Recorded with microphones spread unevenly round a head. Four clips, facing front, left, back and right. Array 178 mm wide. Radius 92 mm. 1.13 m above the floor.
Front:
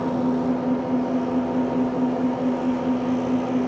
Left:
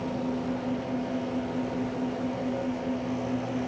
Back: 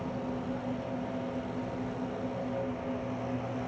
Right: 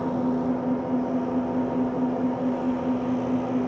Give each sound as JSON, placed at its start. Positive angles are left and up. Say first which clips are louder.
{"t": 0.0, "sound": "an engine running", "louder": "right 6 dB, front 13 dB", "azimuth_deg": -20}